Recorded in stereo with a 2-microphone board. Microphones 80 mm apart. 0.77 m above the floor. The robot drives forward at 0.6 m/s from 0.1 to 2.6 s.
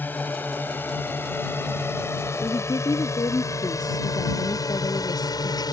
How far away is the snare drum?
I don't hear a snare drum.